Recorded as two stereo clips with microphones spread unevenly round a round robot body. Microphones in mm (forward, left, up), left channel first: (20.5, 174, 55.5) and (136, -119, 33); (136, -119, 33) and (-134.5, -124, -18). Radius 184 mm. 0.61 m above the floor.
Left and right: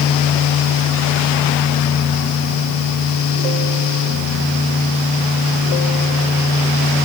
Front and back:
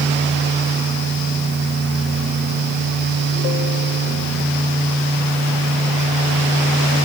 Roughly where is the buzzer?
I don't hear a buzzer.